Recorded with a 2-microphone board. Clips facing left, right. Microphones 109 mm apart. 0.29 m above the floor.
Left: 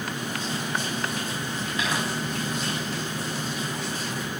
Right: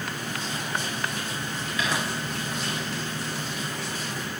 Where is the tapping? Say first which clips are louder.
Right 1 dB; 35° left (ahead or behind), 6 m.